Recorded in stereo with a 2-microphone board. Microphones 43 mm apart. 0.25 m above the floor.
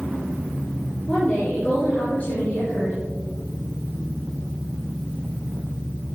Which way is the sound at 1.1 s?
40° left (ahead or behind).